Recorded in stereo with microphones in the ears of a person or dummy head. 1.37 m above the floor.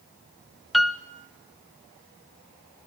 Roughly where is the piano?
Centre.